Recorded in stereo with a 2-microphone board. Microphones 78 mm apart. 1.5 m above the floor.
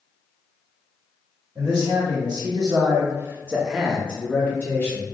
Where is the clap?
No clap in this recording.